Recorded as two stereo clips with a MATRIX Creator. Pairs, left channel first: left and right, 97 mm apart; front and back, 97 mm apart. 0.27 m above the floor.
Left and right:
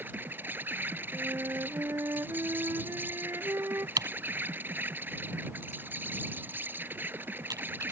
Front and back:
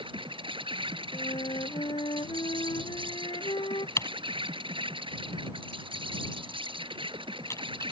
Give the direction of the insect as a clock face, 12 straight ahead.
5 o'clock.